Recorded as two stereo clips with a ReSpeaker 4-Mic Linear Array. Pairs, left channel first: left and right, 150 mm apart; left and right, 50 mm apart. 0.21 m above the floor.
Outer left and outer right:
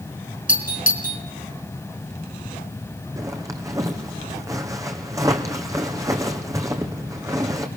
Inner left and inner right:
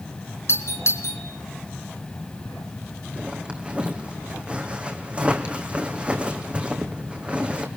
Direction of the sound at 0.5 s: 60° left (ahead or behind).